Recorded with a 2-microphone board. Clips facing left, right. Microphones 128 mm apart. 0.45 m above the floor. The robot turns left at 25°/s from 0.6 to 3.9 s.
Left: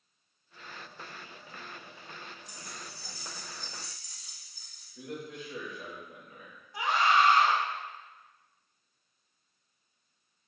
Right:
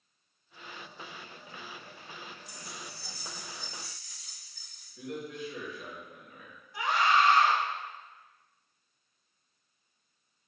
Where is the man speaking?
35° left (ahead or behind), 1.5 m.